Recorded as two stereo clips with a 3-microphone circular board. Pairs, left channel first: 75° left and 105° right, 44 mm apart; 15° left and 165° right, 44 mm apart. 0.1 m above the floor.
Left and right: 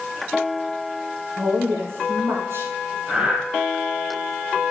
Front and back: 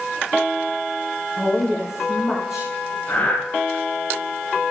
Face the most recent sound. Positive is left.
turn(degrees=-40)